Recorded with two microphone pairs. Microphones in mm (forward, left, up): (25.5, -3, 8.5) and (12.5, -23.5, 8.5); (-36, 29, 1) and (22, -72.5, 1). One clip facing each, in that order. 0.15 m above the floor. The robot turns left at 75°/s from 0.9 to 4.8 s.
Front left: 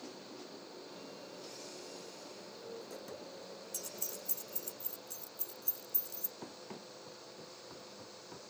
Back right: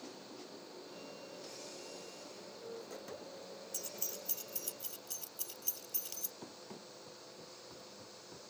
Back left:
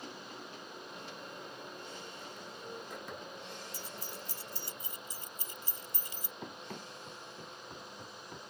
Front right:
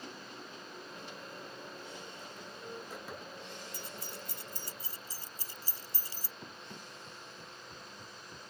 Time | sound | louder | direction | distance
3.7 | keys jangling | back right 1 dB, even | 35° right | ?
6.4 | running footsteps | front left 2 dB, back left 6 dB | 130° left | ?